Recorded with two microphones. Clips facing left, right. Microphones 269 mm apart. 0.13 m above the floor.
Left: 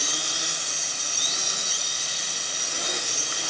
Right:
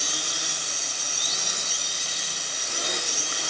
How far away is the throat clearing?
I don't hear throat clearing.